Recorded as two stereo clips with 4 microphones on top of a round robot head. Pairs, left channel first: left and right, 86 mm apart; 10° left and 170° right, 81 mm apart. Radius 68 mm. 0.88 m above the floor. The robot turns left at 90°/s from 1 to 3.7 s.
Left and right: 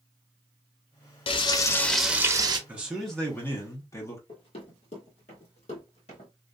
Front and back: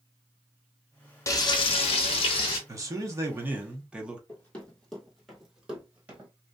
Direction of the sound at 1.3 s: 70° left.